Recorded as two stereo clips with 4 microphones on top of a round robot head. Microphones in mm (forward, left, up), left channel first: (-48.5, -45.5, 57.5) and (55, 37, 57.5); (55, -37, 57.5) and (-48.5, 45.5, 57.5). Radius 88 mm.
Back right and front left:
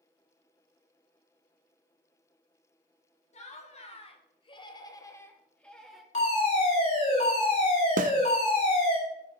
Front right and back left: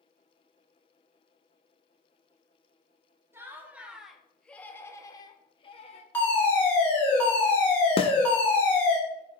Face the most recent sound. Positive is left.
turn(degrees=10)